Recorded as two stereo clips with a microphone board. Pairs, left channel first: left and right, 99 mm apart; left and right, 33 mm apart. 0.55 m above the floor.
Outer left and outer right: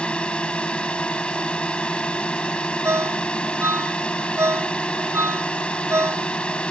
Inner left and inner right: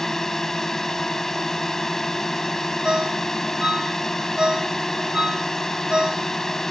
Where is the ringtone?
30° right (ahead or behind).